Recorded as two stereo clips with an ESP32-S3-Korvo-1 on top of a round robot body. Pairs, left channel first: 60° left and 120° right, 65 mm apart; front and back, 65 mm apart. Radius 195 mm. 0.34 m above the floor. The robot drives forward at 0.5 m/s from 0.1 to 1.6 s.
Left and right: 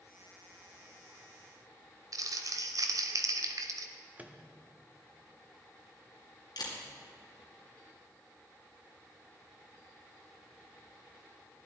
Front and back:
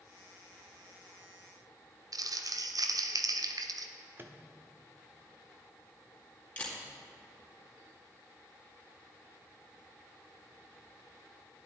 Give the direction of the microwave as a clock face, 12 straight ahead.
6 o'clock.